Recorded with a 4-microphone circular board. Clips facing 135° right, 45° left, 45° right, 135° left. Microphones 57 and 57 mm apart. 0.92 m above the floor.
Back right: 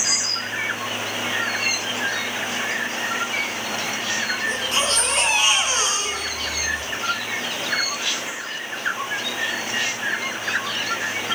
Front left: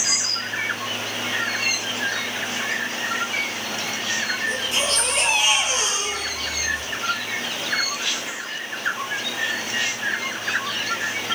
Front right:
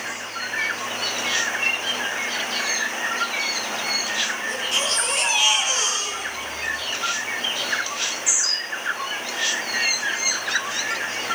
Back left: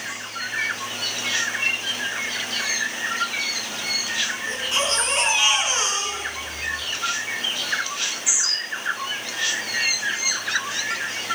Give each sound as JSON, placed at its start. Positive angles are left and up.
{"t": 4.5, "sound": "a baby crying", "azimuth_deg": -165, "distance_m": 7.5}